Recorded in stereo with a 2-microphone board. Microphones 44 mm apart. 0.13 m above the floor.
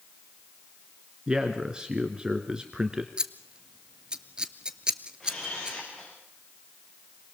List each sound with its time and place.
1.3 s a man speaking: 20° right (ahead or behind), 2.0 m
3.2 s scissors: 20° right (ahead or behind), 1.1 m
5.2 s a camera shutter: 15° left (ahead or behind), 9.5 m